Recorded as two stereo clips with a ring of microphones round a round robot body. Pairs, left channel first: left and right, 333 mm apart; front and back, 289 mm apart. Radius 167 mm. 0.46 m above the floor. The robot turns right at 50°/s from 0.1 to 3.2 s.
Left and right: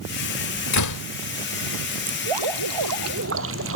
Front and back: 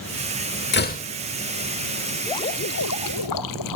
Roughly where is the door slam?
Ahead left.